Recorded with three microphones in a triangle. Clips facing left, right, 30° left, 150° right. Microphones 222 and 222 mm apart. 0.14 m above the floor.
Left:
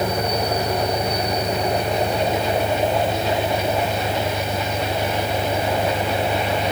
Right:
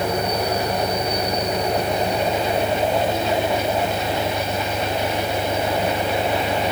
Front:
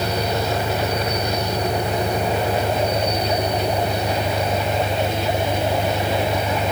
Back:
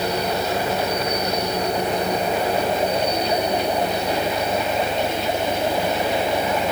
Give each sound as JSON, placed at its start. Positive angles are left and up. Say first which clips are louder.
{"t": 0.0, "sound": "an engine running", "louder": "even, even", "azimuth_deg": 25}